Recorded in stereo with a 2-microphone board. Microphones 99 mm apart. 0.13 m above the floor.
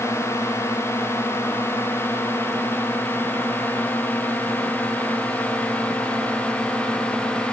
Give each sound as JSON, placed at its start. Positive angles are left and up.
{"t": 0.0, "sound": "a drone", "side_deg": 30}